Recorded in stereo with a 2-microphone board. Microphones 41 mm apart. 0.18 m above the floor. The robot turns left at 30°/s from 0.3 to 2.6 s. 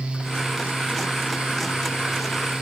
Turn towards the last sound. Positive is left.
No sound to turn to.